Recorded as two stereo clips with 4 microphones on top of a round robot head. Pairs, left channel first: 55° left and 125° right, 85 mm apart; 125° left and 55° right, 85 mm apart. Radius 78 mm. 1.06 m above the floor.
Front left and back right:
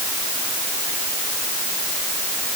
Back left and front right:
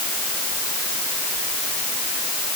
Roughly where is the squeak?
No squeak in this recording.